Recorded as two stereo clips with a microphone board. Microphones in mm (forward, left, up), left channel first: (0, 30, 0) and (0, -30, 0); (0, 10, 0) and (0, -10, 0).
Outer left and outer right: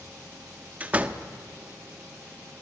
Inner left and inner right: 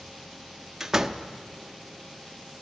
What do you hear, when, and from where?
0.8 s a door slam: 25° right (ahead or behind), 0.8 m